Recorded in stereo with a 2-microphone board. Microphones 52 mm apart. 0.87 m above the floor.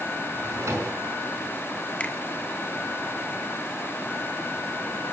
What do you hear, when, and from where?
0.3 s a drawer: 80° right, 5 m
2.0 s a finger snap: 25° left (ahead or behind), 2.5 m